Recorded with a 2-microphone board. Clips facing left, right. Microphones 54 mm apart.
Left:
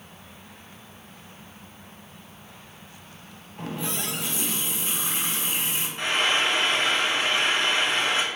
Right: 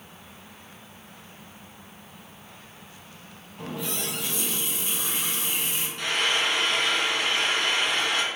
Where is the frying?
30° left (ahead or behind), 0.6 m.